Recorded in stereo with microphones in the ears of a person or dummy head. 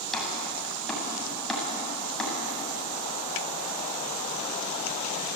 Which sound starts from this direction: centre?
Chopping, at 0.1 s.